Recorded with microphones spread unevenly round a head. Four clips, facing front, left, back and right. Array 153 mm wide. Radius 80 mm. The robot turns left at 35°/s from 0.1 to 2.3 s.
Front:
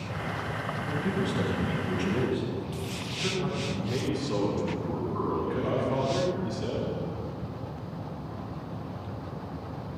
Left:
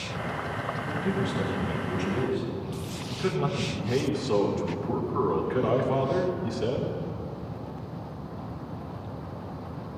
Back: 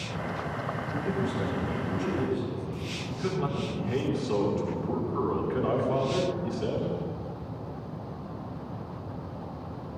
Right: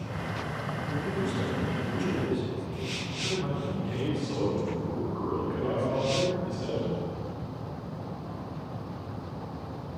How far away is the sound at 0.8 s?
About 4.5 m.